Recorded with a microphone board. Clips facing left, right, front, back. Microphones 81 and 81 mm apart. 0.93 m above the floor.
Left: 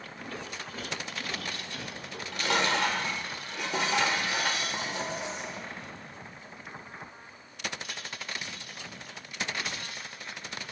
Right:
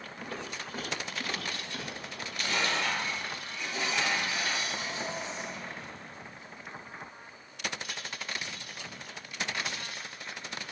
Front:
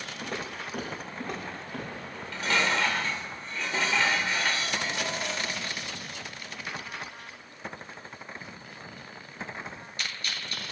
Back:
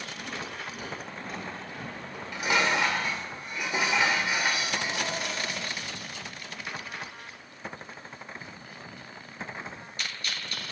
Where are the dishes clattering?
105° left, 2.5 m.